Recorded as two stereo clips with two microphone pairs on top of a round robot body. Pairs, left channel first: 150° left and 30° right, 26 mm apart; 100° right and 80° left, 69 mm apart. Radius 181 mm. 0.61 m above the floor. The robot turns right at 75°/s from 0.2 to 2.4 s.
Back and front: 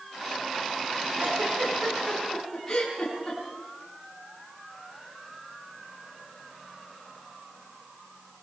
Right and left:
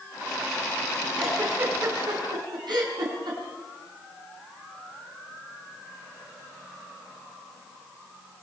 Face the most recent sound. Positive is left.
turn(degrees=75)